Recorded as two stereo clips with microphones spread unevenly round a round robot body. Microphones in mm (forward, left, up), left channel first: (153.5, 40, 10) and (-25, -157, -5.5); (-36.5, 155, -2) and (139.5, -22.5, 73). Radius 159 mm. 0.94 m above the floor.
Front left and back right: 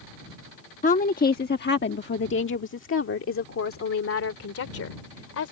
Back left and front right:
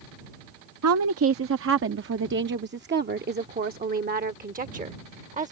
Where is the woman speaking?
15° right; by 5.5 s 15° left.